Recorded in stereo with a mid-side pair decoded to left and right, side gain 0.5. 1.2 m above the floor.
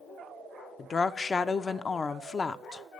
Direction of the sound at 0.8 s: 35° left.